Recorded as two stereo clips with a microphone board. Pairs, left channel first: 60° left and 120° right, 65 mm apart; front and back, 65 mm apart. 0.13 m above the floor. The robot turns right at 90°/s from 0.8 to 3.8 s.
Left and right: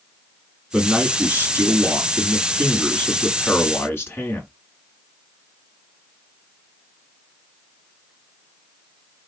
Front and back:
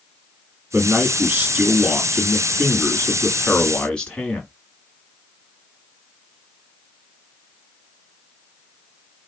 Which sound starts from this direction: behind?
A man speaking, at 0.7 s.